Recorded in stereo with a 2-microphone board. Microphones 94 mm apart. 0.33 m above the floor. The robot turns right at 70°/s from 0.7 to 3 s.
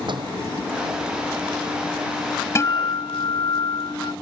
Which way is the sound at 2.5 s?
35° left.